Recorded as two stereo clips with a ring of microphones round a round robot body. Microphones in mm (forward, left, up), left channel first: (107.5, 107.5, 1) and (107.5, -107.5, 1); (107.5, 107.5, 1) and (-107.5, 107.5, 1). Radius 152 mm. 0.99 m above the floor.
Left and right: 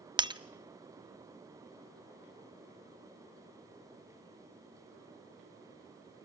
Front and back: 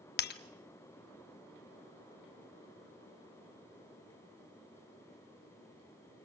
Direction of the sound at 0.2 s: 25° right.